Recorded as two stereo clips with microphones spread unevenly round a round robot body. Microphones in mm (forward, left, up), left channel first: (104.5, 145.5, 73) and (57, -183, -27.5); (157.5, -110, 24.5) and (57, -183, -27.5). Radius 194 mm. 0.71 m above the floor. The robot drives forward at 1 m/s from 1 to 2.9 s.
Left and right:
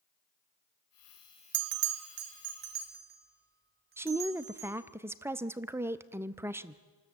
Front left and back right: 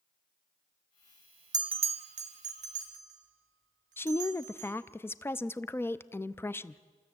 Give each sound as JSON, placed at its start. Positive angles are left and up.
{"t": 1.5, "sound": "a bell", "azimuth_deg": -95, "distance_m": 0.5}
{"t": 4.0, "sound": "a woman speaking", "azimuth_deg": -65, "distance_m": 0.5}